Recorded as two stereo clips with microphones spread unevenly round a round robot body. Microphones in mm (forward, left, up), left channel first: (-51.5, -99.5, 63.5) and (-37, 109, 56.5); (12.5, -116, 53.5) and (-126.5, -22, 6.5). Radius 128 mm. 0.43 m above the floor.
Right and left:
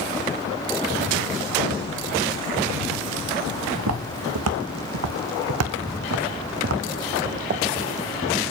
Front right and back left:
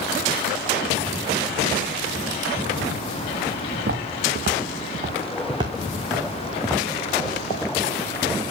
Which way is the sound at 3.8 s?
95° left.